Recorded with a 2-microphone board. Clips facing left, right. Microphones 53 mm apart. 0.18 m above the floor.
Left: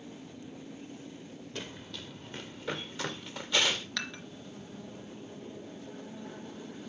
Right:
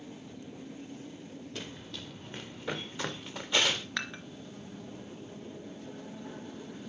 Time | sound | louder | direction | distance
1.6 | running footsteps | left 2 dB | centre (ahead or behind) | 1.5 m
4.0 | dishes clattering | right 2 dB | 20° right (ahead or behind) | 2.0 m